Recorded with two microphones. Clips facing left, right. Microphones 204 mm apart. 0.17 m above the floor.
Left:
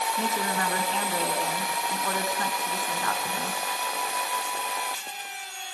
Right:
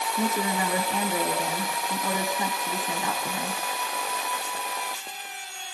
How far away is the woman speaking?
About 2 m.